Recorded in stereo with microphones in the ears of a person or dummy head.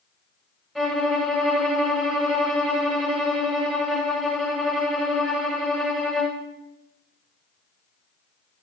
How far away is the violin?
About 1.4 m.